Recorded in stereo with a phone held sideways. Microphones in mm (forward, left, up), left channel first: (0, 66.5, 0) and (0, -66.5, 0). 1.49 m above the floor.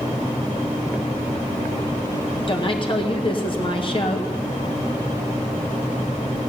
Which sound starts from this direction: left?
A woman speaking, at 2.5 s.